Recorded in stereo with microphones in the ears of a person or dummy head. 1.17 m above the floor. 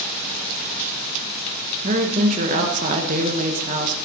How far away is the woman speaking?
About 1.2 m.